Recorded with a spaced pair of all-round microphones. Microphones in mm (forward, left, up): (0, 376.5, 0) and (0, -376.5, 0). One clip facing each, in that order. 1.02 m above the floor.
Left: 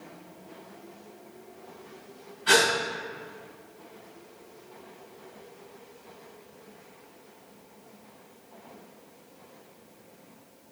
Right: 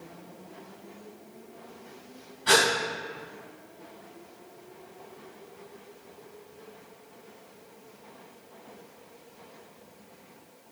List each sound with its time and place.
2.5 s a gasp: 65° right (ahead or behind), 1.9 m